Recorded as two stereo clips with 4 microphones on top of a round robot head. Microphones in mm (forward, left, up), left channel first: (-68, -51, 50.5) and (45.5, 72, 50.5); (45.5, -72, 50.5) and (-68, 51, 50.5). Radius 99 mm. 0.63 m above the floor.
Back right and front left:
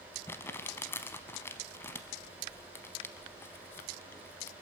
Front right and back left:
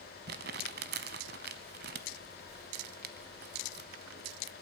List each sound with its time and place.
0.3 s crumpling: 155° left, 0.7 m